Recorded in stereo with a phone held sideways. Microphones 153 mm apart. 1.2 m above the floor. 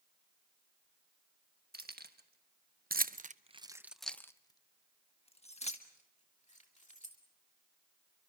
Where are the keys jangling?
85° right, 1.5 m; by 7.2 s 50° left (ahead or behind), 2.5 m.